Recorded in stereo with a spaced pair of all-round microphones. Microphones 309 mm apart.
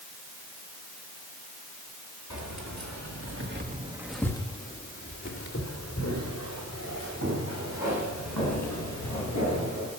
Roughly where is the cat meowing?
I don't hear a cat meowing.